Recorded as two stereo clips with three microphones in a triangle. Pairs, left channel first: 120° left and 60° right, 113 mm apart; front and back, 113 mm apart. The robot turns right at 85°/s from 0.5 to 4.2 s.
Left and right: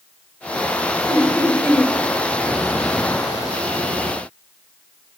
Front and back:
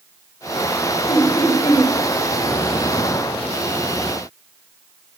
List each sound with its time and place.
1.1 s laughter: 20° right, 1.1 m; by 1.9 s 50° left, 1.1 m